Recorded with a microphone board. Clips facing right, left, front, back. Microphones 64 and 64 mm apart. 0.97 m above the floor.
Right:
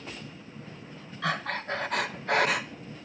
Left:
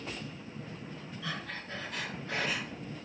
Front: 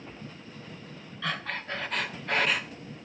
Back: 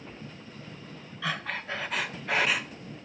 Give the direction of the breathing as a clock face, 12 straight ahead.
3 o'clock.